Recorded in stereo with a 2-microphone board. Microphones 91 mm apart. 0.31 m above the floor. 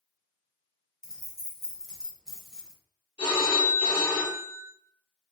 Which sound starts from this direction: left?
A phone ringing, at 3.2 s.